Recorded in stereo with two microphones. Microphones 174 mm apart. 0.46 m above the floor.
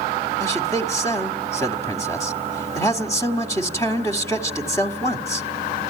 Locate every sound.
0.4 s a man speaking: 15° left (ahead or behind), 1.5 m